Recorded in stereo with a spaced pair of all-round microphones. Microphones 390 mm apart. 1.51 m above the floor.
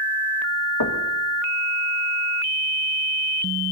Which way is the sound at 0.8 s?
75° left (ahead or behind).